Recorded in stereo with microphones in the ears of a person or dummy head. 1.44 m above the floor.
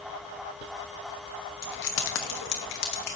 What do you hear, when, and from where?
1.6 s keys jangling: 55° left (ahead or behind), 1.1 m